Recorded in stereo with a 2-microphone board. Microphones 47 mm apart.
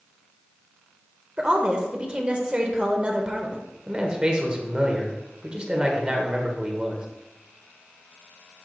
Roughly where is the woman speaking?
Right.